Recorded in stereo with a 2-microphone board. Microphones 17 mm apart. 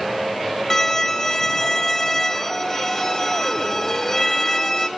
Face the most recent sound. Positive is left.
turn(degrees=25)  # may be behind; listen again after turning